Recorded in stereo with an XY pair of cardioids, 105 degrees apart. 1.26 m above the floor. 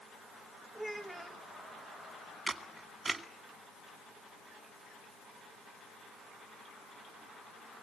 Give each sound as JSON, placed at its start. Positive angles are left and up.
{"t": 0.8, "sound": "a child speaking", "azimuth_deg": 0, "distance_m": 1.1}
{"t": 2.5, "sound": "a camera shutter", "azimuth_deg": -25, "distance_m": 1.9}